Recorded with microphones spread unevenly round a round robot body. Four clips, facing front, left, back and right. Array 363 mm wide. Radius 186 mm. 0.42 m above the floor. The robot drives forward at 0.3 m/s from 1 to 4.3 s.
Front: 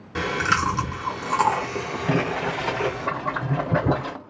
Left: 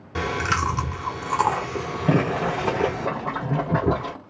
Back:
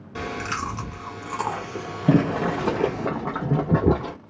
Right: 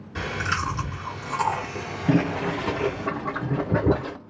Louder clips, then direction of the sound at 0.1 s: Left 4 dB, front 6 dB; 65° left.